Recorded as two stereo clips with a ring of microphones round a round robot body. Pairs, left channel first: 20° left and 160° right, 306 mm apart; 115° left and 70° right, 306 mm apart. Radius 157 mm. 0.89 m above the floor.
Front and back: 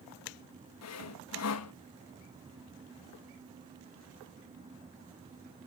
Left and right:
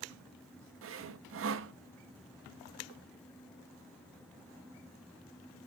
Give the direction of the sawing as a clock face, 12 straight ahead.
1 o'clock.